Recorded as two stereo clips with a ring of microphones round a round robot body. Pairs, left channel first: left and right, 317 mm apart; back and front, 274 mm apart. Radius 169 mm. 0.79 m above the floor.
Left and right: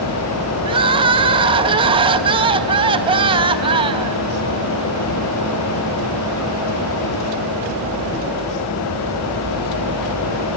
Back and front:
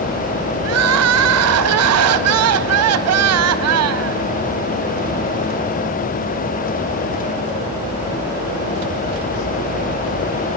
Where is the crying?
20° right, 0.7 m.